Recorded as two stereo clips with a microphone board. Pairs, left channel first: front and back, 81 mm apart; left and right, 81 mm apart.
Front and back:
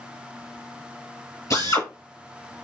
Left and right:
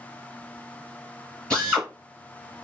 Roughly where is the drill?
Ahead.